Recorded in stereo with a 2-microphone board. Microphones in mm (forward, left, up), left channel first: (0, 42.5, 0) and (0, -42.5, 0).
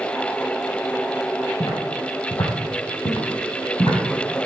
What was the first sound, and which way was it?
Footsteps, 60° left (ahead or behind).